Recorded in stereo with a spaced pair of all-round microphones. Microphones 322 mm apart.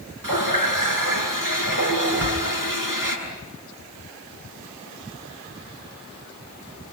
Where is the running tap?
75° right (ahead or behind), 7.5 m.